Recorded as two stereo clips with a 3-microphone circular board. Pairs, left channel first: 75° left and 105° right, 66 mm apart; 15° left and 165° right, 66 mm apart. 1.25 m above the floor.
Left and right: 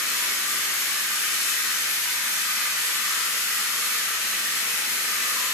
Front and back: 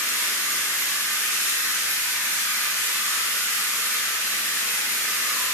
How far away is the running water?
About 1.2 m.